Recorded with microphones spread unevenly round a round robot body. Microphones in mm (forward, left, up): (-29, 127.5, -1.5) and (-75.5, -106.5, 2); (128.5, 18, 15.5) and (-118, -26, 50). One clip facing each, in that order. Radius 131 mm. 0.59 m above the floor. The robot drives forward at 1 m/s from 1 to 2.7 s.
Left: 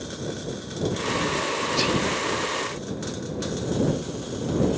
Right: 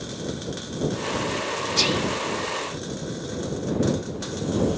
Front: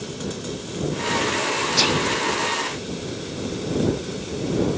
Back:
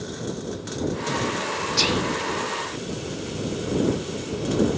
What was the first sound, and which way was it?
Whispering, 55° right.